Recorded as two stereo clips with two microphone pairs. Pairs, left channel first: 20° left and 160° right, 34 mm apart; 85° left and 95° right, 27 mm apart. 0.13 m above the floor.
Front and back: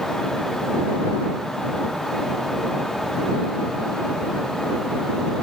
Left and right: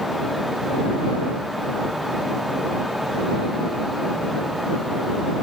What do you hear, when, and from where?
Only background noise.